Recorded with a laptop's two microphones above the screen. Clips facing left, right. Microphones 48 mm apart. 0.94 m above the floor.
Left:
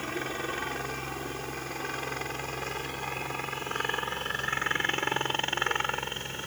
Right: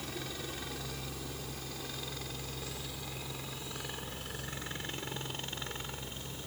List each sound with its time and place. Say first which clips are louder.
0.0 s a helicopter: left 8 dB; 45° left (ahead or behind); by 6.5 s 55° left (ahead or behind)